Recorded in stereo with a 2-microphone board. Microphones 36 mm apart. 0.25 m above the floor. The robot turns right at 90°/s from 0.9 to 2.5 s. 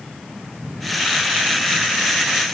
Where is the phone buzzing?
I don't hear a phone buzzing.